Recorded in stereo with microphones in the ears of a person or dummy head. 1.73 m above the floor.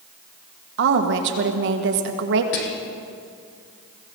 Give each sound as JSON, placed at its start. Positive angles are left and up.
{"t": 0.8, "sound": "a woman speaking", "side_deg": -65, "distance_m": 1.7}
{"t": 2.5, "sound": "whispering", "side_deg": 45, "distance_m": 0.9}